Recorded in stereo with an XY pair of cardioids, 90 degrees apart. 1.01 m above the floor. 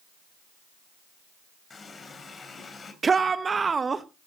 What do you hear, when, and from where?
1.7 s a running tap: 40° left, 3.5 m
3.0 s a shout: 35° right, 0.8 m